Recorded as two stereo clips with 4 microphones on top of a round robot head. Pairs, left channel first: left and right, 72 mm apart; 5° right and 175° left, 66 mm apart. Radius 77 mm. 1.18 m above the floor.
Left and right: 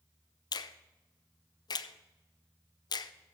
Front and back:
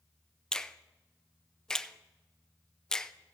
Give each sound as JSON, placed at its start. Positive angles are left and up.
{"t": 0.5, "sound": "a finger snap", "azimuth_deg": 75, "distance_m": 0.6}